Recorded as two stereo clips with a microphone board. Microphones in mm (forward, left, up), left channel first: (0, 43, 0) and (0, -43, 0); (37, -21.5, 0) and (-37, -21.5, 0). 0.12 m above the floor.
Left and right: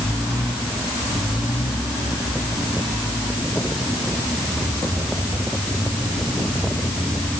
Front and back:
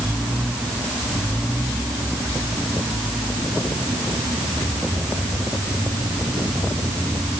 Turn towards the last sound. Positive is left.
No sound to turn to.